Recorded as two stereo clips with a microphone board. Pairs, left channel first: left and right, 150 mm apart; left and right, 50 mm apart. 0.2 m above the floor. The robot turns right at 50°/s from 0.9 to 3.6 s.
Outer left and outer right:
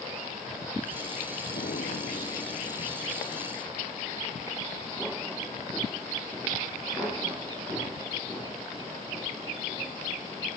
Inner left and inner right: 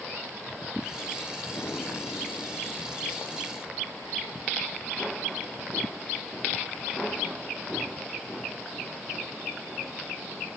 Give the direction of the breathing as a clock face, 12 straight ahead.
9 o'clock.